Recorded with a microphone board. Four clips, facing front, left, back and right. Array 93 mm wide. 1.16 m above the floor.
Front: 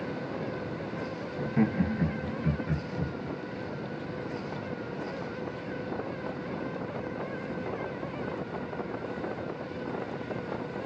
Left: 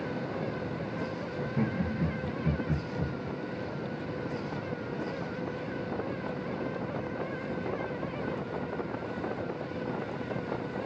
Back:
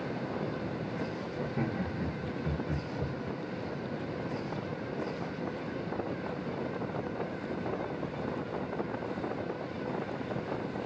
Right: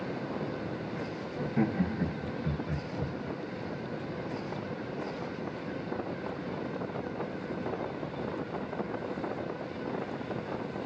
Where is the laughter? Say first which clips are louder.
Right 3 dB, front 8 dB; 30° right, 1.3 m; by 3.1 s 25° left, 1.4 m.